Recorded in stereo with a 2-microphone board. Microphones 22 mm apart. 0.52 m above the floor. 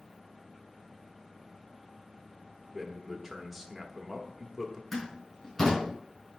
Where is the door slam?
20° left (ahead or behind), 4.5 m.